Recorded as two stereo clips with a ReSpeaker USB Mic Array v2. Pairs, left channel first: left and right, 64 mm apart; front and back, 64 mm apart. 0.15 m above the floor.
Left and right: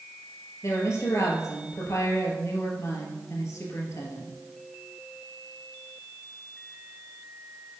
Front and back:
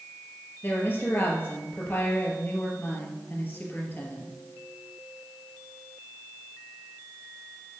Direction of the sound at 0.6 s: 55° left.